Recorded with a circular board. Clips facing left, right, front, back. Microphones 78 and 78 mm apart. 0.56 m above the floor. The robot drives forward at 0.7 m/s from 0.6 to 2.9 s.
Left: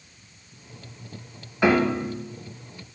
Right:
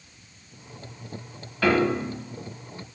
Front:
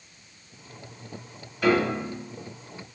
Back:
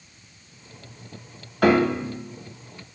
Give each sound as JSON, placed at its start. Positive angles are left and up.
{"t": 1.6, "sound": "a piano", "azimuth_deg": 160, "distance_m": 0.7}